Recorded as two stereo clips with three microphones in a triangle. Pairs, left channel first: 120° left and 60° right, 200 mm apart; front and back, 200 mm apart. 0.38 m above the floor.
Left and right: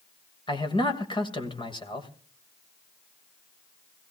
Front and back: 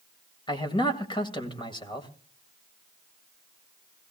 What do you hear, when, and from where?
0.5 s a man speaking: 60° left, 2 m